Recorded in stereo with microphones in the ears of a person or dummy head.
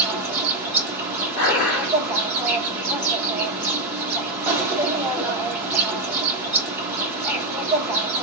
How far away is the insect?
About 1.0 m.